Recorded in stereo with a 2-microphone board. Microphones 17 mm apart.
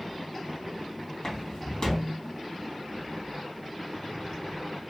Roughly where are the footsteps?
Left.